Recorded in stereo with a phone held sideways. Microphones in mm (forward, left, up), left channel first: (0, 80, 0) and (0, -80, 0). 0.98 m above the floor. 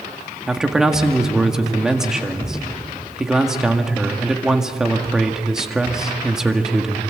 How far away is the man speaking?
About 1.8 m.